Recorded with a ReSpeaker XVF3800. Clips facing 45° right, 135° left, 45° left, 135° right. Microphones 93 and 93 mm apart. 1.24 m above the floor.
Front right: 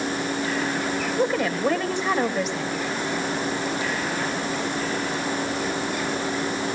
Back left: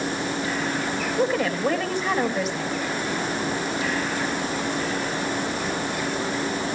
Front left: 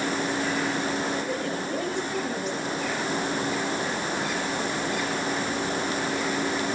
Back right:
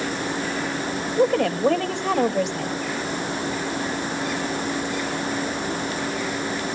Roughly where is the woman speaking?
Behind right.